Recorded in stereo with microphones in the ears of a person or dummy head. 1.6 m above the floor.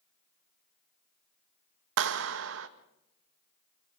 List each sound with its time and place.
2.0 s a clap: 70° right (ahead or behind), 1.6 m